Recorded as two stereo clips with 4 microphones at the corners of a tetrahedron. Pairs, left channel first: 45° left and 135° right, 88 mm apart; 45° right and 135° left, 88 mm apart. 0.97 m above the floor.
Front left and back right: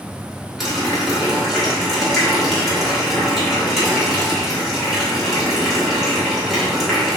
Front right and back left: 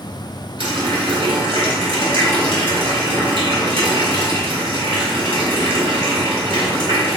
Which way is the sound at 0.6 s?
135° left.